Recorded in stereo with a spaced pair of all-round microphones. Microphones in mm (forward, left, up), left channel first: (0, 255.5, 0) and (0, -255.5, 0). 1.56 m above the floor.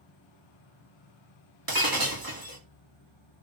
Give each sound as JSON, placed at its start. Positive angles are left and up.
{"t": 0.0, "sound": "an insect", "side_deg": 60, "distance_m": 1.6}
{"t": 1.7, "sound": "breaking glass", "side_deg": -45, "distance_m": 1.4}